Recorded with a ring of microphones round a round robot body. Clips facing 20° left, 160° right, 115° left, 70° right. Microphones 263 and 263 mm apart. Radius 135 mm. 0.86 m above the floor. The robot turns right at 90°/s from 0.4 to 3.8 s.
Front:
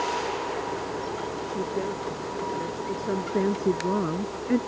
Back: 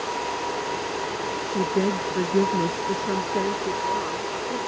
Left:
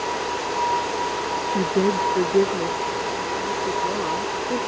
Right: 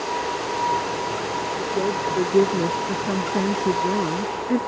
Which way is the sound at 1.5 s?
135° left.